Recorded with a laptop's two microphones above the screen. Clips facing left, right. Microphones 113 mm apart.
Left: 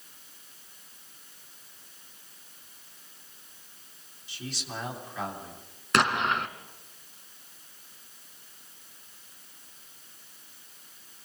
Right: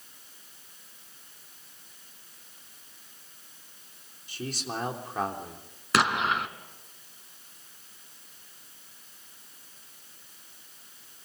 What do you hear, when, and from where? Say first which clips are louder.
4.3 s a man speaking: right 4 dB; 50° right (ahead or behind), 3.5 m
5.9 s an explosion: even; centre (ahead or behind), 1.6 m